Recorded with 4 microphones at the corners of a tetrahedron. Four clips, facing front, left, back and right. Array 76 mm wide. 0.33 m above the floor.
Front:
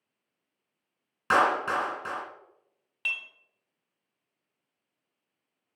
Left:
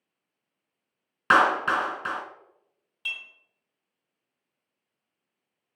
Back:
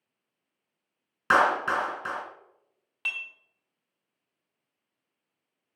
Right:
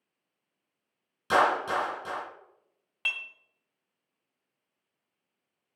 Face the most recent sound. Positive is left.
turn(degrees=-95)